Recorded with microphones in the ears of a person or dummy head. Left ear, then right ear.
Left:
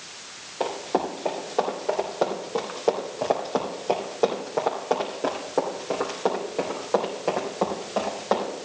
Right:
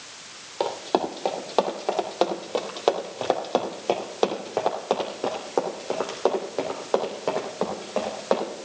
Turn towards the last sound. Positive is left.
turn(degrees=-25)  # may be behind; listen again after turning